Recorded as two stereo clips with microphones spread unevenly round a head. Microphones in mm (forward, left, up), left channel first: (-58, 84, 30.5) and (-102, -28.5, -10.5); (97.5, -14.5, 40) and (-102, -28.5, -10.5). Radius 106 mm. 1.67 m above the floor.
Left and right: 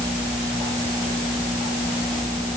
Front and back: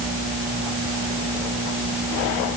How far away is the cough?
No cough in this recording.